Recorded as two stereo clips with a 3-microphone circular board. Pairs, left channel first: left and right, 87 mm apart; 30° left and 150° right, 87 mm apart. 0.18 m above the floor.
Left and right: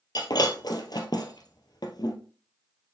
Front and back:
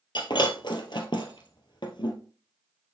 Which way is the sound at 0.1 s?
55° left.